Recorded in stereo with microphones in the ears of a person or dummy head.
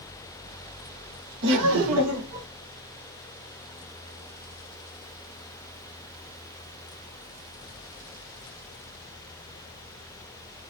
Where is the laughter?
65° right (ahead or behind), 1.1 m; by 2.5 s 75° right (ahead or behind), 1.4 m.